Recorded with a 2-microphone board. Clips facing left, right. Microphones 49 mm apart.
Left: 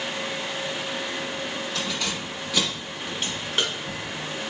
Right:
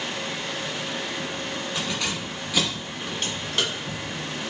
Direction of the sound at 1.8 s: 15° right (ahead or behind).